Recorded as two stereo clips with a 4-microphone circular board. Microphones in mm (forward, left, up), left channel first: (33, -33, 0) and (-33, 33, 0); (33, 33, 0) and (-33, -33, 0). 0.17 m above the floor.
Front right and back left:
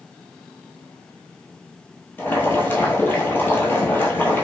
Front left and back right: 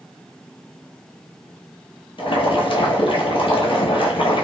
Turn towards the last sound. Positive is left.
turn(degrees=25)